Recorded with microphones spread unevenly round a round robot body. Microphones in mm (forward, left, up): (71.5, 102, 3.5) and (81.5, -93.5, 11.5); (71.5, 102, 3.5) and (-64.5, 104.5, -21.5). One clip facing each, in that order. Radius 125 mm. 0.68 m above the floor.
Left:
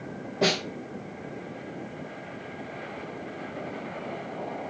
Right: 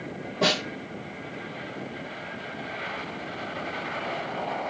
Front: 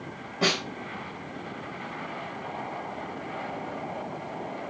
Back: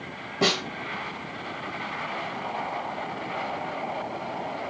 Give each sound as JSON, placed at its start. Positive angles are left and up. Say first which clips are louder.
{"t": 0.4, "sound": "a snare drum", "louder": "left 1 dB, back 2 dB", "azimuth_deg": 180, "distance_m": 1.1}